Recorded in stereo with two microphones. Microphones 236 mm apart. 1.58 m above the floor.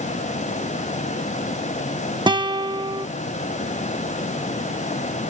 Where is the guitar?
20° right (ahead or behind).